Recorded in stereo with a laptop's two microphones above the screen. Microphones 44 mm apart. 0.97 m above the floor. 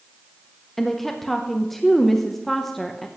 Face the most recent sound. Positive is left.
turn(degrees=5)  # may be behind; listen again after turning